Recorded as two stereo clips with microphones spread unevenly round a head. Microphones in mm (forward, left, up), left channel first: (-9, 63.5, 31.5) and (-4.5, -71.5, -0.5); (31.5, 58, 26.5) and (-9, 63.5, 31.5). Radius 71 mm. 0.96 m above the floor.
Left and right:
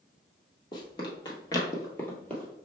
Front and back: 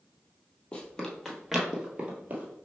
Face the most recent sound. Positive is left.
turn(degrees=160)